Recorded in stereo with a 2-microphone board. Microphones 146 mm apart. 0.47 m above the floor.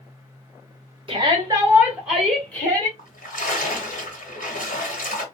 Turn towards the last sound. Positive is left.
turn(degrees=85)